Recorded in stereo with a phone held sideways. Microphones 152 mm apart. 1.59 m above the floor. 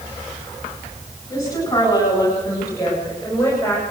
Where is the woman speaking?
20° left (ahead or behind), 9.5 m; by 3.8 s 15° left (ahead or behind), 6.5 m.